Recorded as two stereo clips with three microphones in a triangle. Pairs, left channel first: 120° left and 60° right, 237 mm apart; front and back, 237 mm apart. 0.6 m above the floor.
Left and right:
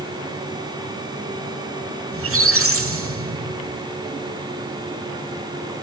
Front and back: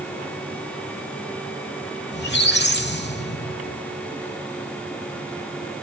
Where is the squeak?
40° right, 1.3 m.